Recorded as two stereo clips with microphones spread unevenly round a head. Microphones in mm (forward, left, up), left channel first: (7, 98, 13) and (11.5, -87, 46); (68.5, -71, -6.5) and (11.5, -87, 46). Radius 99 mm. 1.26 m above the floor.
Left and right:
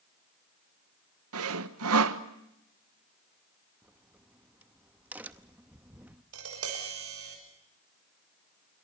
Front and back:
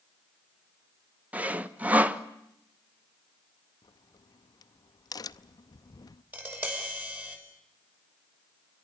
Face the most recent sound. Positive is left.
turn(degrees=-100)